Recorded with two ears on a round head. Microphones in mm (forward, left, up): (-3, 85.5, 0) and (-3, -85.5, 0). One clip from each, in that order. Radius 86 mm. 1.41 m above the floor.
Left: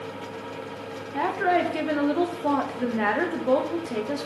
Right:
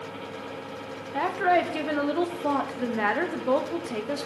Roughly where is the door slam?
No door slam in this recording.